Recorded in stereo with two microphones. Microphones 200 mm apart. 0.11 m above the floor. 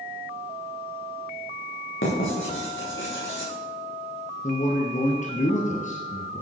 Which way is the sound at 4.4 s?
40° left (ahead or behind).